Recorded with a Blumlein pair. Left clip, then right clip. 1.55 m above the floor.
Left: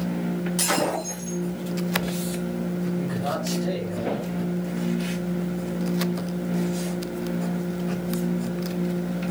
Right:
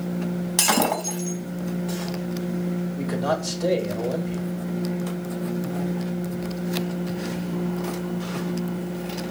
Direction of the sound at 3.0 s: 30° right.